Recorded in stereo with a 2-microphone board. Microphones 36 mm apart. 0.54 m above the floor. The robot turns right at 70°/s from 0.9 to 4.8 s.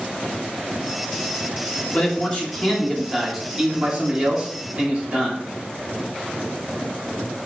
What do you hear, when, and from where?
1.9 s a man speaking: 80° left, 0.7 m; by 5.5 s 80° right, 0.7 m